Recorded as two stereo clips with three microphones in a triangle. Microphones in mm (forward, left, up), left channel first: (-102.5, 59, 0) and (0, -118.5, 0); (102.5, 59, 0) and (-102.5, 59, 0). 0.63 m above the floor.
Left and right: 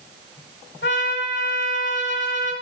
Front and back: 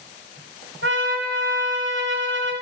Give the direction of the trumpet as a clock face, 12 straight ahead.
7 o'clock.